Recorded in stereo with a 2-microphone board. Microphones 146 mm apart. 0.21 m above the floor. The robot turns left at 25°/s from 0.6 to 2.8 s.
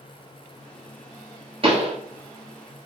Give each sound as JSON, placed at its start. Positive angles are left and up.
{"t": 1.6, "sound": "a pop", "side_deg": -40, "distance_m": 1.1}